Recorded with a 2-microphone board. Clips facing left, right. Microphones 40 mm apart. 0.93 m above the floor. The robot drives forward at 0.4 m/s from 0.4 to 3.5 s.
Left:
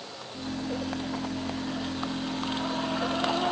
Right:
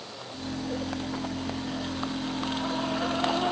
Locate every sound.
Only background noise.